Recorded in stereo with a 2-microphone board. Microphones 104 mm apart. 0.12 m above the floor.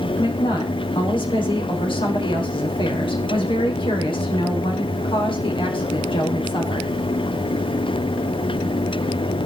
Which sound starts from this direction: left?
A woman speaking, at 0.2 s.